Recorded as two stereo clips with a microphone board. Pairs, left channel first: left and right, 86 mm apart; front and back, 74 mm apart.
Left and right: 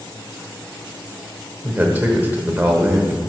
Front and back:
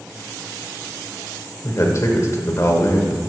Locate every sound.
1.6 s a man speaking: 30° right, 1.1 m